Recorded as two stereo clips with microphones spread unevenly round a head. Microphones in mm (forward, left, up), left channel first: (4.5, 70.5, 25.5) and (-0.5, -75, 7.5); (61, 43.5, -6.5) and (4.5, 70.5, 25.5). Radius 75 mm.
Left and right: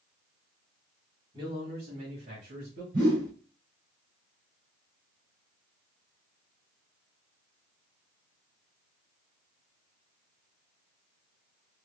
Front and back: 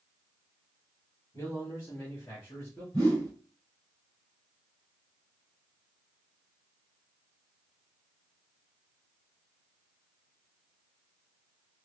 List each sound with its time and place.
1.3 s a man speaking: 40° right, 2 m; by 2.8 s 65° right, 1.2 m
2.9 s a whoosh: 65° right, 2.5 m